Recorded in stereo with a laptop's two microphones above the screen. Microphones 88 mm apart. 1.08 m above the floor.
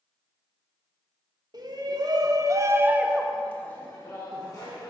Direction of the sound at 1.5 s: 50° right (ahead or behind).